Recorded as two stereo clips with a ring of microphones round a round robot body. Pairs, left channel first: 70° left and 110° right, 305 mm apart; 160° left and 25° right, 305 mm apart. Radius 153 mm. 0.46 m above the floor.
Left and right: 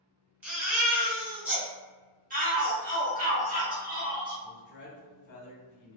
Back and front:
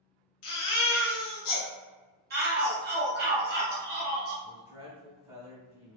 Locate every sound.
0.4 s a baby crying: 160° left, 1.0 m
2.3 s a shout: 65° right, 1.0 m
4.4 s a man speaking: 40° left, 0.8 m